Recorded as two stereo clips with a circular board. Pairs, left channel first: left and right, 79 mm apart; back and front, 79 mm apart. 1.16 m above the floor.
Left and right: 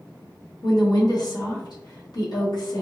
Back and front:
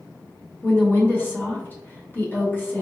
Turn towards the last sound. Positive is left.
turn(degrees=115)